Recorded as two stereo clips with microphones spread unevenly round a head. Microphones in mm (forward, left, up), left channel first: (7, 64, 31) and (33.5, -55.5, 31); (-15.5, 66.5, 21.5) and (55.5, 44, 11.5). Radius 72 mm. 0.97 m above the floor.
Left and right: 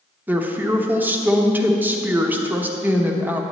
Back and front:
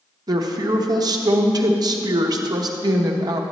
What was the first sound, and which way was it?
A woman speaking, 5° right.